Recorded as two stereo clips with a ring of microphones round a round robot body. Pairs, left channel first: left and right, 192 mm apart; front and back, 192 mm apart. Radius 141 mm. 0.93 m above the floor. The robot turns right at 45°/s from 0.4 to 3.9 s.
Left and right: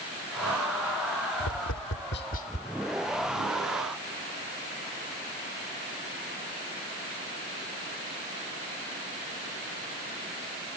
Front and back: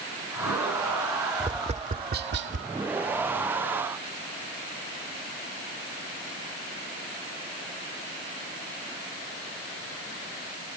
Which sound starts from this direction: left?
Tapping, at 1.4 s.